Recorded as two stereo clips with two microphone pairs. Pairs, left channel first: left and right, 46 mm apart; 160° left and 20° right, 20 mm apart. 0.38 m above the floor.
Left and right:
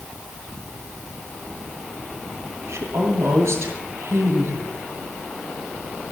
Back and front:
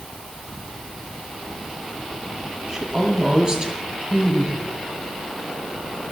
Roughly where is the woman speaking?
Right.